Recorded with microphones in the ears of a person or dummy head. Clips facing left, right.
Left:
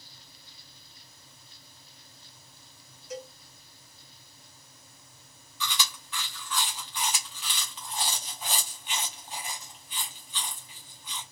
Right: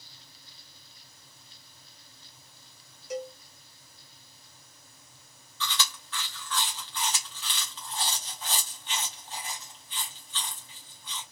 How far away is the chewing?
About 0.6 m.